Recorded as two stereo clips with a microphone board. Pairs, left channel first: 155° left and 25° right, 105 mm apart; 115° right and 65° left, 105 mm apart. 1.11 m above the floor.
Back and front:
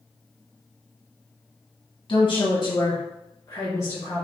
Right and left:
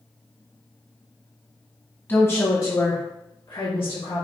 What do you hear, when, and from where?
2.1 s a woman speaking: straight behind, 1.1 m; by 4.2 s 135° right, 1.8 m